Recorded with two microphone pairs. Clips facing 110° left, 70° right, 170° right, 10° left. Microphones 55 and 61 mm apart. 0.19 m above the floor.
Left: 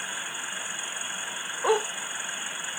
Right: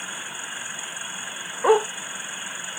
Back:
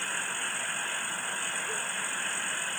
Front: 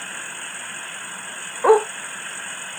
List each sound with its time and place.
1.6 s a dog barking: straight ahead